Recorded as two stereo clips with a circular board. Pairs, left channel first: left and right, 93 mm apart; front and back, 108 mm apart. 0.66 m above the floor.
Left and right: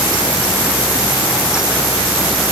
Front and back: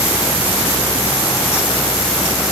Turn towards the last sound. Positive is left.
No sound to turn to.